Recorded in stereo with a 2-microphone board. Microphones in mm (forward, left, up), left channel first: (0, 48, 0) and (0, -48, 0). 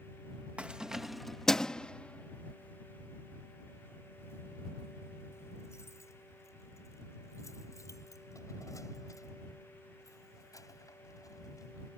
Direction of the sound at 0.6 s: 15° right (ahead or behind).